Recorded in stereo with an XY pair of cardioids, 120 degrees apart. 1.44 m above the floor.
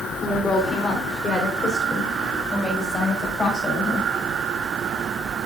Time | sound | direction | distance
0.2 | a woman speaking | 25° left | 3.5 m